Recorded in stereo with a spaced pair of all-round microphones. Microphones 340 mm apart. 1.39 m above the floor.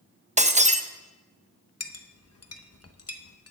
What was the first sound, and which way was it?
Breaking glass, 20° right (ahead or behind).